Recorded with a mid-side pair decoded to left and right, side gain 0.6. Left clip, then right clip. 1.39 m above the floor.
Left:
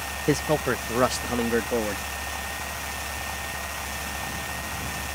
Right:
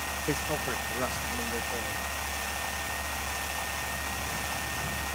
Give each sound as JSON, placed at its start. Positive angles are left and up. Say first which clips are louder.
{"t": 0.3, "sound": "a man speaking", "louder": "left 9 dB", "azimuth_deg": 35}